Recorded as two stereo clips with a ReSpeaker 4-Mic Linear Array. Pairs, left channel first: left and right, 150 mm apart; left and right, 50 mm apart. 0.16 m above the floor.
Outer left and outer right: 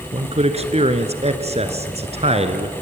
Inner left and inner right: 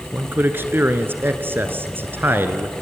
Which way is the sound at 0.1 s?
45° right (ahead or behind).